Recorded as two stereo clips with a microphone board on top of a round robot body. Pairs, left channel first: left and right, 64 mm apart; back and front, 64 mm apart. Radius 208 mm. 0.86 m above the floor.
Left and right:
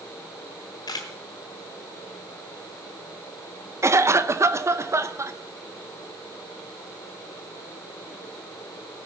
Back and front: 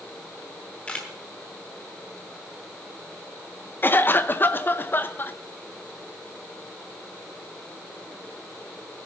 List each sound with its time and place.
0.9 s a camera shutter: 110° left, 0.9 m
3.8 s a cough: 125° right, 1.3 m